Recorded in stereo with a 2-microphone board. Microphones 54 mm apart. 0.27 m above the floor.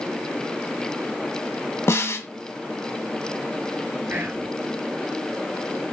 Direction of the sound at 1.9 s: 55° left (ahead or behind).